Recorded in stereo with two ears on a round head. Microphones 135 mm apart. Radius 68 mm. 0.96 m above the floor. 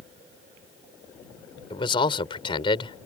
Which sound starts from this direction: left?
A man speaking, at 1.7 s.